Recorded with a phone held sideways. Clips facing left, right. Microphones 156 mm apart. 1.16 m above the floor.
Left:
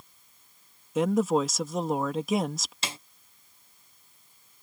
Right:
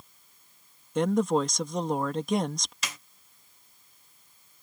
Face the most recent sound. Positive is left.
turn(degrees=25)  # may be behind; listen again after turning